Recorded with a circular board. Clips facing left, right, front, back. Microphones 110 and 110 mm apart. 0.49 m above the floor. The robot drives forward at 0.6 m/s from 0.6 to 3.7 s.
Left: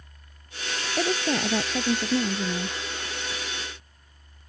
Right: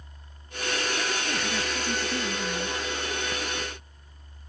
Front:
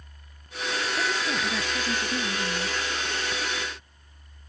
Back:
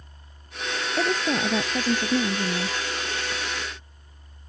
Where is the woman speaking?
130° left; by 2.8 s 135° left.